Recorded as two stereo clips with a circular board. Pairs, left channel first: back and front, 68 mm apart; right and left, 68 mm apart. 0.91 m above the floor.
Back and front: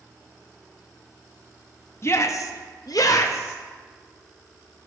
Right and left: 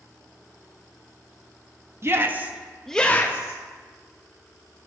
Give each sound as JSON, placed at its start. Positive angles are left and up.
{"t": 2.0, "sound": "a shout", "azimuth_deg": 135, "distance_m": 0.9}